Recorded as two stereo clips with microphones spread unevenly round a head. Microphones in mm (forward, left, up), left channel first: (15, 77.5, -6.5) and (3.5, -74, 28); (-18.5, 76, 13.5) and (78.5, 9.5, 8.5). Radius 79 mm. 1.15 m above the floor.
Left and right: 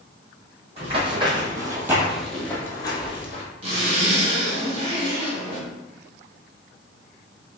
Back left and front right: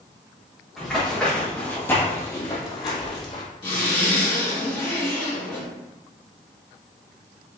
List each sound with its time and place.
0.8 s running footsteps: 125° right, 1.9 m; by 3.5 s 135° left, 1.5 m
3.6 s a zipper: 150° right, 1.7 m